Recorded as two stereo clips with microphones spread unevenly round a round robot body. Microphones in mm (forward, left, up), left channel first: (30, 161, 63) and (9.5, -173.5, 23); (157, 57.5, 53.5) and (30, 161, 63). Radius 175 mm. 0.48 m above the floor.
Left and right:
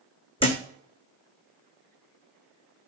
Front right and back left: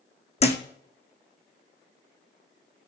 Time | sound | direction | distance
0.4 | a thud | 15° left | 2 m